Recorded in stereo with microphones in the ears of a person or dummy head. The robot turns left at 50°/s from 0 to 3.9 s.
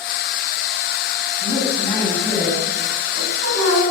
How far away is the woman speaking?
About 8 m.